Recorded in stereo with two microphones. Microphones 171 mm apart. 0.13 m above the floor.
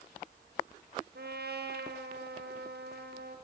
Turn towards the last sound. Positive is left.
turn(degrees=-70)  # may be behind; listen again after turning